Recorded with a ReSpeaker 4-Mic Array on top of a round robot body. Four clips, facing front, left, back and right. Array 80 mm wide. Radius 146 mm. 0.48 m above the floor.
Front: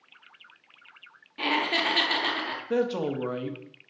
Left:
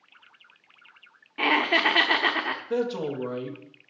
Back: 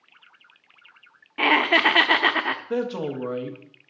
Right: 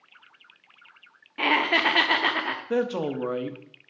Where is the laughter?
Straight behind, 1.0 m.